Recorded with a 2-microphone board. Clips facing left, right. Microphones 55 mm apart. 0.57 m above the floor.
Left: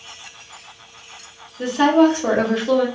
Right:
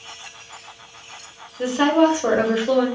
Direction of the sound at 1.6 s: 10° right (ahead or behind).